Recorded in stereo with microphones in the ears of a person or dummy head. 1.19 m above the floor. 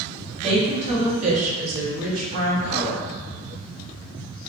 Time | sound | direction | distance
0.4 | a woman speaking | 30° right (ahead or behind) | 1.3 m